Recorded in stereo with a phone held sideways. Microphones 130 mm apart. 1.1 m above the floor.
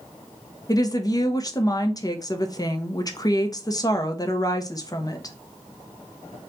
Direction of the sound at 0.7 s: 30° left (ahead or behind).